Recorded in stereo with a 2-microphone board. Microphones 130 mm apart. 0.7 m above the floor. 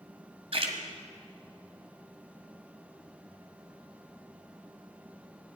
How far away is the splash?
About 1.8 m.